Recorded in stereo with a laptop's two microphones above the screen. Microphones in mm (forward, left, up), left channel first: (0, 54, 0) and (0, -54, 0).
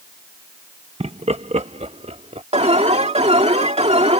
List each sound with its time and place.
1.0 s laughter: 65° right (ahead or behind); by 2.4 s 80° right
2.5 s an alarm: 80° right